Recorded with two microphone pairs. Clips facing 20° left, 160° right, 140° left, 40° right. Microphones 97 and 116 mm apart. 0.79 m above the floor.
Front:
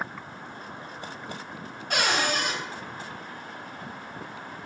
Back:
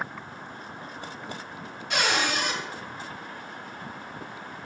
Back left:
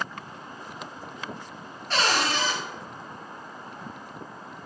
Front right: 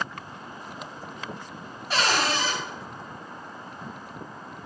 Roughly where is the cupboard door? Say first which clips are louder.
Even, even; ahead left.